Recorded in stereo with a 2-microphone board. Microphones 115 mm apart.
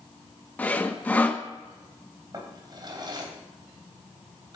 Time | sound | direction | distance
0.6 | sawing | 15° left (ahead or behind) | 1.3 m
2.3 | a drawer | 40° right (ahead or behind) | 3.5 m